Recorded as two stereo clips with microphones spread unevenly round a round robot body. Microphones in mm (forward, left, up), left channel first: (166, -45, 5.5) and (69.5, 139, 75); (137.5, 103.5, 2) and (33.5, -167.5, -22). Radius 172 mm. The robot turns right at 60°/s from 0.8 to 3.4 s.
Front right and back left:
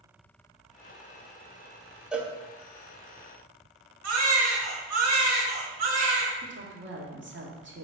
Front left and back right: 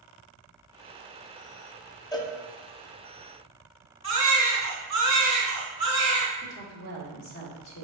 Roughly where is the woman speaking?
Left.